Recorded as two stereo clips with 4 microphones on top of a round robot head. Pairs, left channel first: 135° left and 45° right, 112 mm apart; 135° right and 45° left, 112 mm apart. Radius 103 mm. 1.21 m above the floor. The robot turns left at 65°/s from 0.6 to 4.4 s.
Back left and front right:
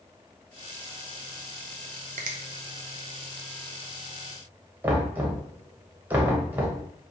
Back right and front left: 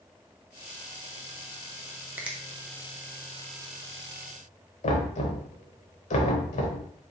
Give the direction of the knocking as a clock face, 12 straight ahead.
4 o'clock.